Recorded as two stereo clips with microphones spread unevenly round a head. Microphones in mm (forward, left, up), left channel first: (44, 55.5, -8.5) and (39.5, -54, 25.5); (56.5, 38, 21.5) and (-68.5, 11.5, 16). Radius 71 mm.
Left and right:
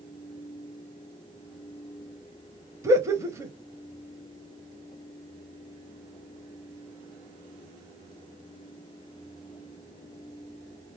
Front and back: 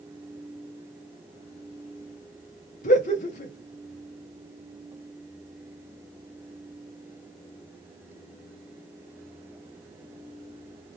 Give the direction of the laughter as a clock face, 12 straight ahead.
1 o'clock.